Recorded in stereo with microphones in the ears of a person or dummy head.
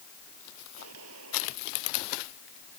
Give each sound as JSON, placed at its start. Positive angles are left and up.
{"t": 0.8, "sound": "a gunshot", "side_deg": -80}